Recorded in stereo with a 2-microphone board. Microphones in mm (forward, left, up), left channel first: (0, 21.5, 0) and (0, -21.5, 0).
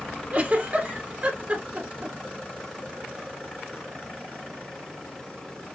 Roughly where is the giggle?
Right.